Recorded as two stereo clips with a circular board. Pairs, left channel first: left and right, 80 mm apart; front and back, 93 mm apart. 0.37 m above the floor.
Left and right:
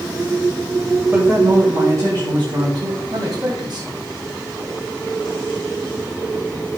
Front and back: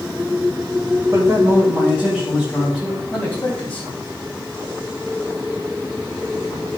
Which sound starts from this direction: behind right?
A man speaking, at 1.1 s.